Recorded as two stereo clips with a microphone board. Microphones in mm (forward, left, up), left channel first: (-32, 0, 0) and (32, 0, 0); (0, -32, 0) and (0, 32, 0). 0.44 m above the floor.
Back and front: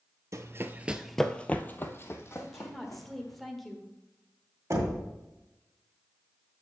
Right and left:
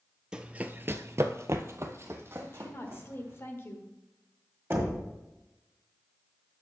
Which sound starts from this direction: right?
A woman speaking, at 2.4 s.